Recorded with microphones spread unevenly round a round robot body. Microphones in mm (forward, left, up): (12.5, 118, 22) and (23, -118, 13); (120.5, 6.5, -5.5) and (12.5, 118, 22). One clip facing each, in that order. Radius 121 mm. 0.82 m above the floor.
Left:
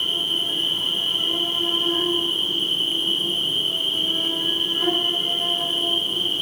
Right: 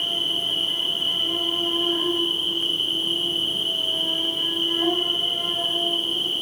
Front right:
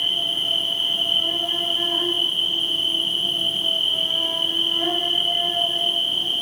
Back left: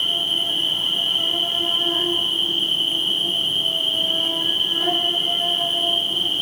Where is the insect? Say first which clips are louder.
Left 1 dB, back left 2 dB; 125° left, 3 m.